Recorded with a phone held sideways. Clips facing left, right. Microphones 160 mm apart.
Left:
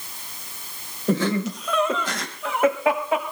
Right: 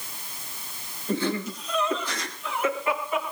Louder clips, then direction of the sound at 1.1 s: Left 5 dB; 85° left.